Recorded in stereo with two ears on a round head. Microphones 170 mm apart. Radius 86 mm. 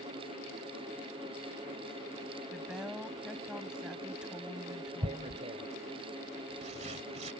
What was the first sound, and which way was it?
A woman speaking, 5° right (ahead or behind).